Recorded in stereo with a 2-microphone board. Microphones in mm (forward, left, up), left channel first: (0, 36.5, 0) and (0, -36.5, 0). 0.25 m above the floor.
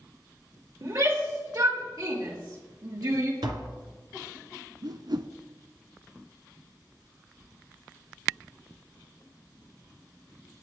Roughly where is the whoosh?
Right.